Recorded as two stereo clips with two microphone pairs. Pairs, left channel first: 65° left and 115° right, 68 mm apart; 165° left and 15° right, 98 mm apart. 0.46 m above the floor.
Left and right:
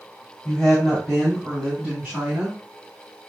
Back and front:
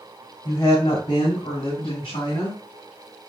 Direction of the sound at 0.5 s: 145° left.